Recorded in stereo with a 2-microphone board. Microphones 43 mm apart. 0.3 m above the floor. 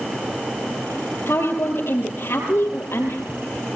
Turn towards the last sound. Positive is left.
turn(degrees=70)  # may be behind; listen again after turning